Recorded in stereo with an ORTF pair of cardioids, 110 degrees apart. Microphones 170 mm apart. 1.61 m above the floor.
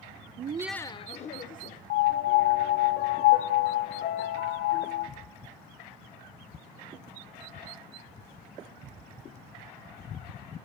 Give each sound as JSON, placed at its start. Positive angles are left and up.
{"t": 0.4, "sound": "laughter", "azimuth_deg": -55, "distance_m": 0.6}
{"t": 1.9, "sound": "a piano", "azimuth_deg": 70, "distance_m": 1.0}